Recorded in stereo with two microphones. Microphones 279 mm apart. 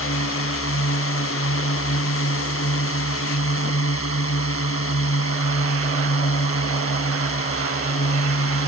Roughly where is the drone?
Left.